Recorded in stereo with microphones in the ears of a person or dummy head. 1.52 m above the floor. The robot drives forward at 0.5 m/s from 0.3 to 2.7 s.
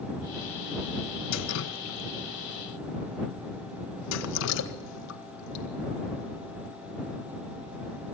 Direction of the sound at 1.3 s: 75° left (ahead or behind).